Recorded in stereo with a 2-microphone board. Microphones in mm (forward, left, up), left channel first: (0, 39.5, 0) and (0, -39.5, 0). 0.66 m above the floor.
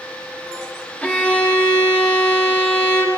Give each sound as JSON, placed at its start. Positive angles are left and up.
{"t": 1.0, "sound": "a violin", "side_deg": 10, "distance_m": 1.1}